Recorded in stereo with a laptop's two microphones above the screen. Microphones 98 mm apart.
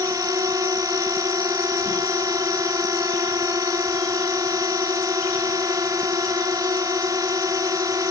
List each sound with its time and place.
0.0 s a drone: 35° right (ahead or behind)